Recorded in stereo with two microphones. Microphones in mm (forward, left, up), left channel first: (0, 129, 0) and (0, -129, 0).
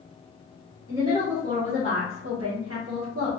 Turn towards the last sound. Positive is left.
turn(degrees=-55)  # may be behind; listen again after turning